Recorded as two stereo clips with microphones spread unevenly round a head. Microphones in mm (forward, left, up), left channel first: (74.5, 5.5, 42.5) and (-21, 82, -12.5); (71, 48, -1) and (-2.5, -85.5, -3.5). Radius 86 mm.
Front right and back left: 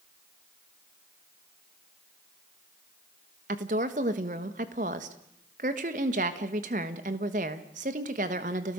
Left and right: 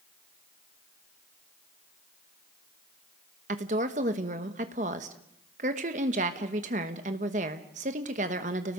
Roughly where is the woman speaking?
Behind.